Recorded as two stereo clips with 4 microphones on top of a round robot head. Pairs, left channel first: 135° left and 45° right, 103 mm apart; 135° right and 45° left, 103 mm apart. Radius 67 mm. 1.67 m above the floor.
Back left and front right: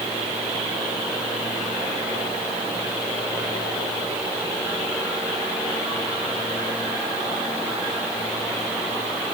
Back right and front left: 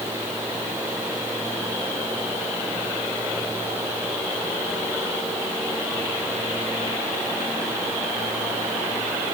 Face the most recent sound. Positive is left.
No sound to turn to.